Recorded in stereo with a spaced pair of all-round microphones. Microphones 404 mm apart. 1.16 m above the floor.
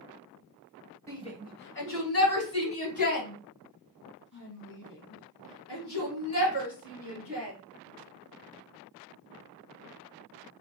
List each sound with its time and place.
1.1 s a shout: 5° left (ahead or behind), 1.0 m; by 7.5 s 60° left (ahead or behind), 5 m